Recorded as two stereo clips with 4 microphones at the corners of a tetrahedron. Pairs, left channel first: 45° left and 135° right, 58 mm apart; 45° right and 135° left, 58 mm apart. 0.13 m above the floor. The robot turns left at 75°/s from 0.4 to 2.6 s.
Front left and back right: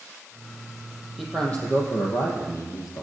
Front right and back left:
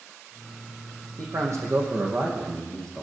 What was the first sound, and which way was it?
A man speaking, 140° left.